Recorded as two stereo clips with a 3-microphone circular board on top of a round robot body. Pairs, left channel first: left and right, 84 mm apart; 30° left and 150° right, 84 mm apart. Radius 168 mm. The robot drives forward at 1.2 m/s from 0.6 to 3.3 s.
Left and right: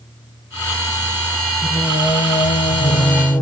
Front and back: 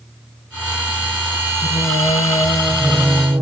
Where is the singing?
30° left, 1.3 m; by 3.4 s 145° left, 1.2 m.